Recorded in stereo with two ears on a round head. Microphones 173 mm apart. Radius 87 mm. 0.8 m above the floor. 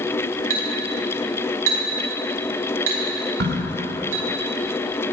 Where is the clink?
85° right, 4.5 m.